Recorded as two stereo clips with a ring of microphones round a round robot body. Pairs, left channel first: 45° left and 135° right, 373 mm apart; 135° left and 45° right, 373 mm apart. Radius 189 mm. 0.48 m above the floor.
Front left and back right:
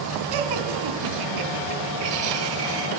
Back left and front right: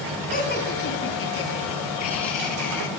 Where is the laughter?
160° right, 5 m; by 2.9 s 170° left, 6 m.